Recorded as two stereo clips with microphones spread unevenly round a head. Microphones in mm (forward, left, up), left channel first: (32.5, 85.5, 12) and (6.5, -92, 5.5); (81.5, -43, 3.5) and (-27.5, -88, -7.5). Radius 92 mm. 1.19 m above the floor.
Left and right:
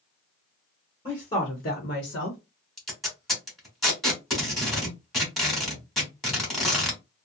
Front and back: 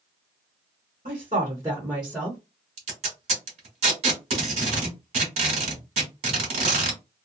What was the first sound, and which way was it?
A woman speaking, 155° left.